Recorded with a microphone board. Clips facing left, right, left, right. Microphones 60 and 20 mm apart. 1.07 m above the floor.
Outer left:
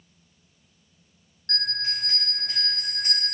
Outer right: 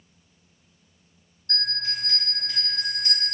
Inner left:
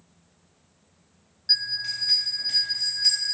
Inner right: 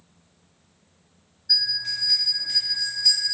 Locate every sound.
1.5 s a bell: 70° left (ahead or behind), 1.4 m